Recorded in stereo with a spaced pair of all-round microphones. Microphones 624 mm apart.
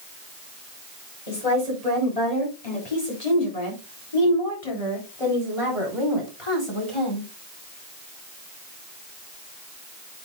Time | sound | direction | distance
1.3 | a woman speaking | 85° left | 4.5 m